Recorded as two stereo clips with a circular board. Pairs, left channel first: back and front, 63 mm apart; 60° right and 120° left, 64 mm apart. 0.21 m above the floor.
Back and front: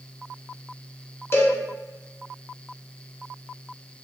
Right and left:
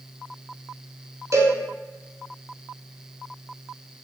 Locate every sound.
1.3 s a cowbell: 140° left, 0.9 m